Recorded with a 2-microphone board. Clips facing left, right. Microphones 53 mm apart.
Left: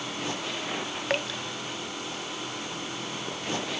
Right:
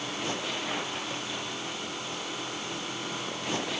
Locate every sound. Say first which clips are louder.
1.1 s dripping: left 6 dB; 75° left (ahead or behind)